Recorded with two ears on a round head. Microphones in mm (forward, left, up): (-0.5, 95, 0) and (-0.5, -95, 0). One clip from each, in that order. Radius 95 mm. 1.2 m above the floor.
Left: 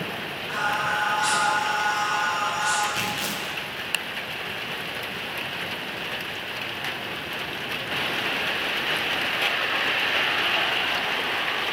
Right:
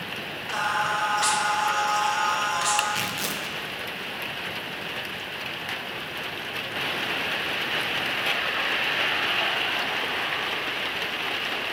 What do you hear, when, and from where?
0.5 s singing: 60° right (ahead or behind), 1.7 m
2.9 s tearing paper: 10° right (ahead or behind), 0.8 m